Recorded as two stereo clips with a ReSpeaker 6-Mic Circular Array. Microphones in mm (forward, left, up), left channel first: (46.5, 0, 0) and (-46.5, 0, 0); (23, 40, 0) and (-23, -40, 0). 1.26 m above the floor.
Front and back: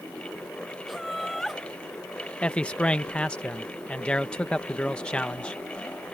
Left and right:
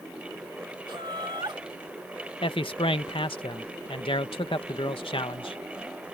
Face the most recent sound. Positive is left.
turn(degrees=80)